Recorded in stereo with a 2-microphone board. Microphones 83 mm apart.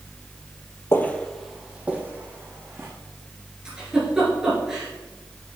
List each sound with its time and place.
0.9 s footsteps: 30° left (ahead or behind), 0.8 m; by 2.9 s 35° right (ahead or behind), 2 m
3.6 s a giggle: 10° right (ahead or behind), 3.5 m